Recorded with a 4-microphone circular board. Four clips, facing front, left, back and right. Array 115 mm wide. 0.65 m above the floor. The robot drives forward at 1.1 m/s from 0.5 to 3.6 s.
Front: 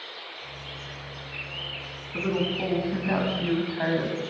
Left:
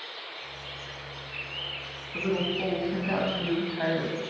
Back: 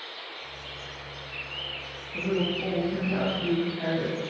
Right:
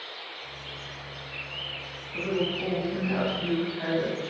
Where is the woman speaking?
25° left, 6.5 m; by 4.2 s 30° left, 5 m.